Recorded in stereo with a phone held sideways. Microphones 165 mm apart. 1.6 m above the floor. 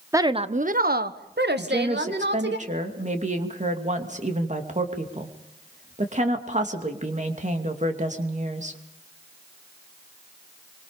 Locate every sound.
0.1 s a woman speaking: 15° right (ahead or behind), 0.7 m; by 2.6 s 85° right, 2.5 m
1.6 s a woman speaking: 45° right (ahead or behind), 2.5 m